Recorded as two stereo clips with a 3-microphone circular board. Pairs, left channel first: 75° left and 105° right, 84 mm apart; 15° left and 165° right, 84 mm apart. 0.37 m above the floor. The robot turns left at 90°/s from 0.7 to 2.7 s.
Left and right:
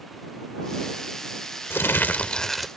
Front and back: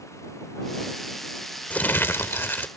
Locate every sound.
1.7 s crumpling: 65° left; by 2.7 s 20° right